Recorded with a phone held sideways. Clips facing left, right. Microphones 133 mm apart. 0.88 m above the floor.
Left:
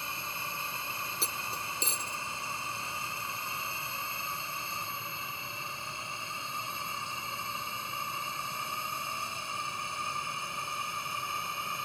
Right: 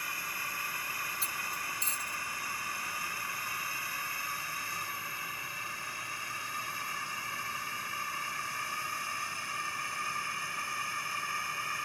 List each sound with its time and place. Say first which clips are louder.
0.0 s a drone: left 2 dB; 25° left (ahead or behind); by 11.8 s 20° left (ahead or behind)
1.2 s cutlery clinking: left 2 dB; 80° left